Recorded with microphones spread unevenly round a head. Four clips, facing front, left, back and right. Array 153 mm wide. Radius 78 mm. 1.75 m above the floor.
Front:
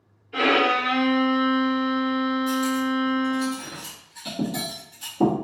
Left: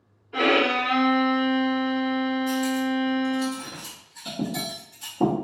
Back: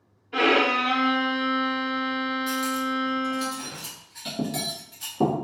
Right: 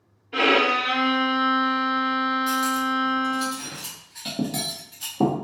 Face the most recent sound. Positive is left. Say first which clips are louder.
# right 1 dB, front 4 dB
turn(degrees=-85)